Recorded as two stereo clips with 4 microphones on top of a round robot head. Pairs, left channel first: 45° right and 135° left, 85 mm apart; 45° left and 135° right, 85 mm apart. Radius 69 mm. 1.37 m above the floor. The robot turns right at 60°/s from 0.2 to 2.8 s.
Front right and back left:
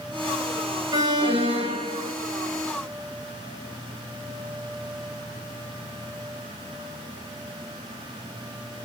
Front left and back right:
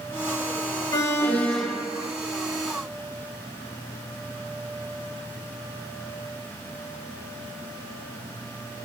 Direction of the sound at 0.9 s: 90° left.